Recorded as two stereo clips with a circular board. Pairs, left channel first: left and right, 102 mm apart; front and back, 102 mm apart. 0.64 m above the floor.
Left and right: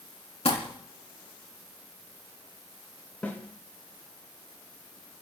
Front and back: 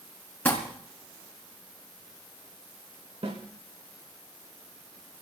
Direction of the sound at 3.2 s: 160° left.